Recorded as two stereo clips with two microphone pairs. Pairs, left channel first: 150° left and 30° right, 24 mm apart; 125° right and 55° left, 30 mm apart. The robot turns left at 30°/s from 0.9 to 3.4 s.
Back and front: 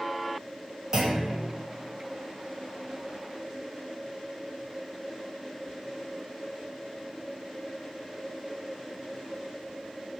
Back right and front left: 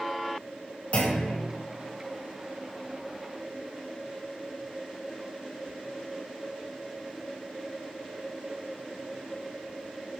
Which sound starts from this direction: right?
A clunk, at 0.9 s.